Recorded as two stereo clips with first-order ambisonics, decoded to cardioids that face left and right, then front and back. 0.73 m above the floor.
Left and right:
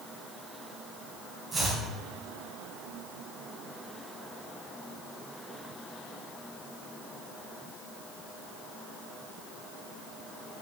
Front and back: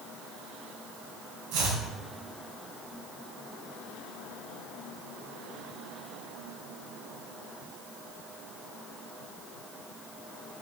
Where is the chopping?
170° right, 3.5 m.